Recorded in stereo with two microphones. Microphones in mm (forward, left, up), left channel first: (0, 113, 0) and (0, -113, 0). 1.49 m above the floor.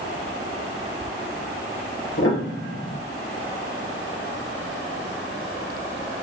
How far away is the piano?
About 0.7 m.